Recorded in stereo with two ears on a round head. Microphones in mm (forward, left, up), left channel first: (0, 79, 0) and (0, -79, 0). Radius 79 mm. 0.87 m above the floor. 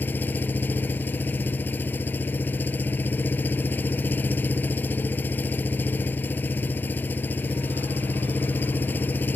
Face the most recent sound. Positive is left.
turn(degrees=10)  # may be behind; listen again after turning